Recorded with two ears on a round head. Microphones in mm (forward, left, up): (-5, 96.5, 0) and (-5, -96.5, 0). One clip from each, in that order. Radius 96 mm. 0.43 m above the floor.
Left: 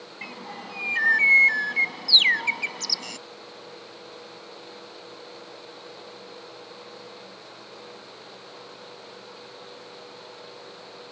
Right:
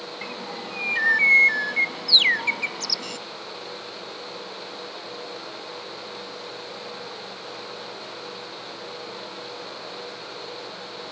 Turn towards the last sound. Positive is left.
turn(degrees=15)  # may be behind; listen again after turning